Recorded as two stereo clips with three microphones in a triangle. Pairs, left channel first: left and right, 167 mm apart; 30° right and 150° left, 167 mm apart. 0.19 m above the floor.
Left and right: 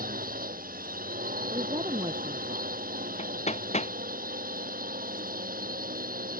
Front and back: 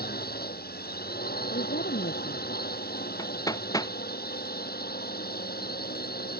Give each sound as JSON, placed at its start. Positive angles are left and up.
{"t": 0.0, "sound": "a drone", "azimuth_deg": -55}
{"t": 1.5, "sound": "a woman speaking", "azimuth_deg": -30}
{"t": 3.2, "sound": "hammering", "azimuth_deg": 40}